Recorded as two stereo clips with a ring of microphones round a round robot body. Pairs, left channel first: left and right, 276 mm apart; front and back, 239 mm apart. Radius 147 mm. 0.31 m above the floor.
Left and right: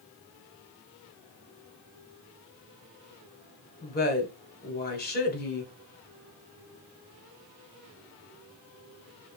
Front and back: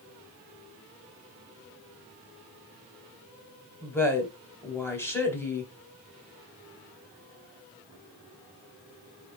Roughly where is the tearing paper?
No tearing paper in this recording.